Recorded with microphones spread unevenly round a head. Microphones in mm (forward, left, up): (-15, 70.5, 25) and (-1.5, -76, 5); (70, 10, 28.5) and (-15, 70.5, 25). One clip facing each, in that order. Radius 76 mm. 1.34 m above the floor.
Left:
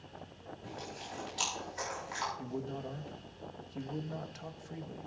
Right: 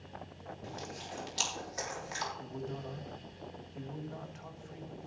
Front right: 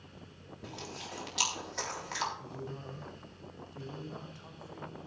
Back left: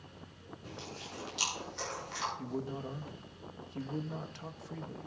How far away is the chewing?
About 4 m.